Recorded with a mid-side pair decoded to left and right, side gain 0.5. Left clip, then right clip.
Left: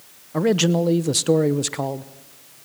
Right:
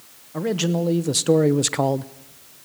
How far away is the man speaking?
About 1.1 m.